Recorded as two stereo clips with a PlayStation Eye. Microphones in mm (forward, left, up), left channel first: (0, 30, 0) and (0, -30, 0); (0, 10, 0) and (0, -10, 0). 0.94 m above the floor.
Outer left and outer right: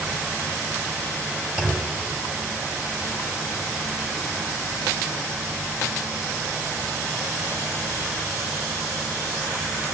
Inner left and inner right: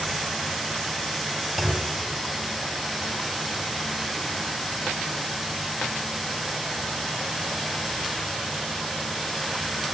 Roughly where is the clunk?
Centre.